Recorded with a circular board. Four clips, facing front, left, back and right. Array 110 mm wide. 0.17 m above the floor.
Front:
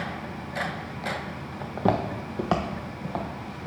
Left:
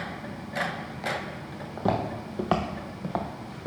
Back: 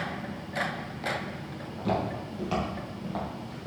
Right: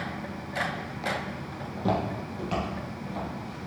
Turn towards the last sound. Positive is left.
turn(degrees=85)